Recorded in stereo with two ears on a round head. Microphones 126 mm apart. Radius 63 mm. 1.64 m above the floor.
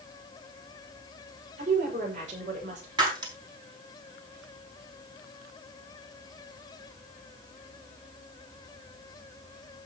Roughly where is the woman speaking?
Right.